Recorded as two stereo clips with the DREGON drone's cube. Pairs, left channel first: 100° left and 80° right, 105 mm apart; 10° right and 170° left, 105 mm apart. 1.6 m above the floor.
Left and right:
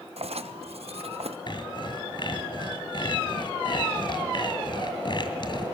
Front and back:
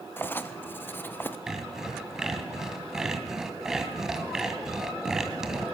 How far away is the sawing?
About 2 m.